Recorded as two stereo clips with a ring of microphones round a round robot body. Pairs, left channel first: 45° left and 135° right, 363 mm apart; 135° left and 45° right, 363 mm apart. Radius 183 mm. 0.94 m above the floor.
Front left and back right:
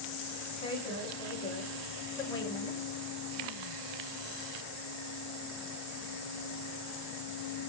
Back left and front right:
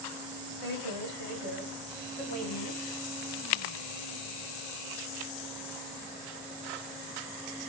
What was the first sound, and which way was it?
A woman speaking, 115° left.